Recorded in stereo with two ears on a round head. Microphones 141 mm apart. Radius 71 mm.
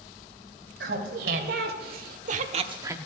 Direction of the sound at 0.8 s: 75° right (ahead or behind).